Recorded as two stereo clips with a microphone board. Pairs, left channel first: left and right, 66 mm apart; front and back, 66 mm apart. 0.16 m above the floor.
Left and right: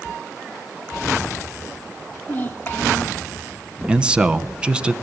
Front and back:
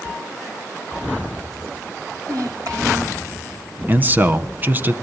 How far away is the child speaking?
About 5 m.